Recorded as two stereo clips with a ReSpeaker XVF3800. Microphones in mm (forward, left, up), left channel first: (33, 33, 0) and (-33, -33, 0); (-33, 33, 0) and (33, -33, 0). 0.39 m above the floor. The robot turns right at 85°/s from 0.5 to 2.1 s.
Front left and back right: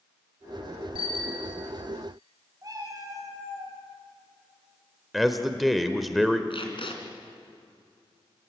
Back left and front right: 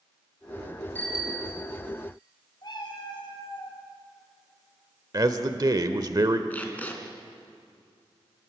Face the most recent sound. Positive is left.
turn(degrees=65)